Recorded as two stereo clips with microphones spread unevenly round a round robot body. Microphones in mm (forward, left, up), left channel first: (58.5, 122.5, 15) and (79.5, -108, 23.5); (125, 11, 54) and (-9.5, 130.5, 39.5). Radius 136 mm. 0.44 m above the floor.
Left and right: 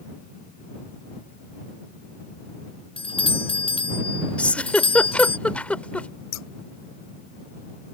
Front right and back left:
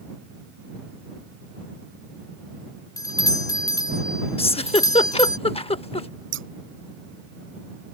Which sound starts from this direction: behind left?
Scissors, at 6.3 s.